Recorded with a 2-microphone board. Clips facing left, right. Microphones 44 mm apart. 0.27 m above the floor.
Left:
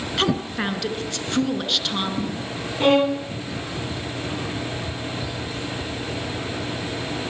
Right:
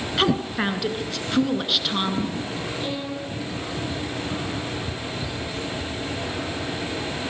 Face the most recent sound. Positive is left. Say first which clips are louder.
# left 11 dB
turn(degrees=60)  # may be behind; listen again after turning